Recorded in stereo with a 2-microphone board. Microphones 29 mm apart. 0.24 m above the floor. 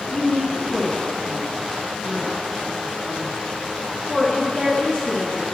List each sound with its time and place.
0.1 s a woman speaking: 35° left (ahead or behind), 3.5 m